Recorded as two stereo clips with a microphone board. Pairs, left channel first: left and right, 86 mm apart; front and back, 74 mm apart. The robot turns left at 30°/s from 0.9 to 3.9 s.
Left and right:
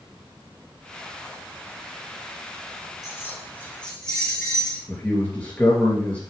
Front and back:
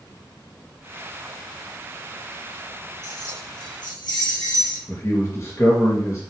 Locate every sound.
3.0 s keys jangling: 35° left, 3.5 m; by 4.8 s 10° left, 3.5 m
4.9 s a man speaking: 20° left, 2 m